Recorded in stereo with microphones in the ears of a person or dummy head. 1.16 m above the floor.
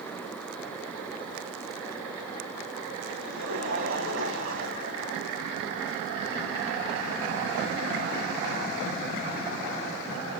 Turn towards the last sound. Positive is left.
turn(degrees=-85)